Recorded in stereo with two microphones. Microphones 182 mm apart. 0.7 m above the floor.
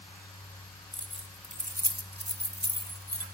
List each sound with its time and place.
0.9 s keys jangling: 25° right (ahead or behind), 1.5 m; by 3.2 s 55° right (ahead or behind), 1.7 m